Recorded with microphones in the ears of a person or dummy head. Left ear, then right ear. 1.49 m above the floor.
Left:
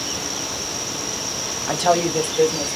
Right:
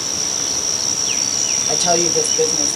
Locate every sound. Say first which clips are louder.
1.7 s a woman speaking: even; 50° left (ahead or behind), 1.0 m; by 2.8 s 45° left (ahead or behind), 1.7 m